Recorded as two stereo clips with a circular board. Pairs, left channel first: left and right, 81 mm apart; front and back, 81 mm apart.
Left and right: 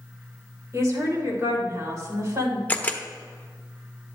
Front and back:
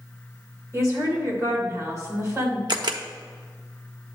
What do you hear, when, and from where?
0.7 s a woman speaking: 135° right, 3 m
2.7 s a camera shutter: 160° left, 0.8 m